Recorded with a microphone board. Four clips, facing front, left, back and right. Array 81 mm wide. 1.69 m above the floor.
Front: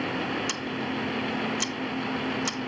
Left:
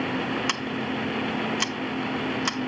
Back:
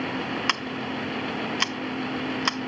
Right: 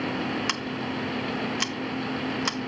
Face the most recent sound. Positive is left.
turn(degrees=180)